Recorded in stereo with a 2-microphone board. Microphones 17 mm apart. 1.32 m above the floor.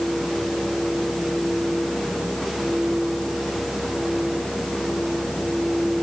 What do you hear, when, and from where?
Only background noise.